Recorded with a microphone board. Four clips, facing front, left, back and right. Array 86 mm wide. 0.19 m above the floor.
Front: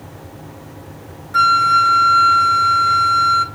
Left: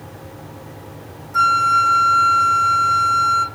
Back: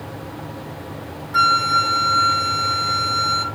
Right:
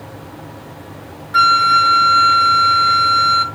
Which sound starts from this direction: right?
A flute, at 1.3 s.